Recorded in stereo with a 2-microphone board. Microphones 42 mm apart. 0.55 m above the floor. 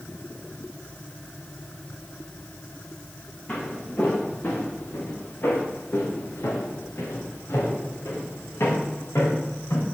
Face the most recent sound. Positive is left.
turn(degrees=75)  # may be behind; listen again after turning